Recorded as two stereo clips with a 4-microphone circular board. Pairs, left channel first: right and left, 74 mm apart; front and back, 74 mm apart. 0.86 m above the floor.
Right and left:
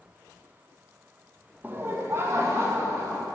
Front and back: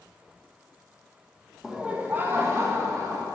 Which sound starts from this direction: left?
Laughter, at 1.6 s.